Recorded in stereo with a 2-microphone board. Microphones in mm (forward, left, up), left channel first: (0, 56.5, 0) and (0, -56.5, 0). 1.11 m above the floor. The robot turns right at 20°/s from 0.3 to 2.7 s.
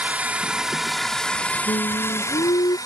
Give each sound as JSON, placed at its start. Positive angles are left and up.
{"t": 0.0, "sound": "a drone", "azimuth_deg": -15}
{"t": 1.7, "sound": "singing", "side_deg": 70}